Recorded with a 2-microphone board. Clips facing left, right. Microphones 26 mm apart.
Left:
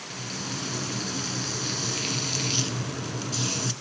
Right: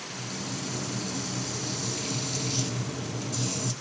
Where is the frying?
60° left (ahead or behind), 0.7 m.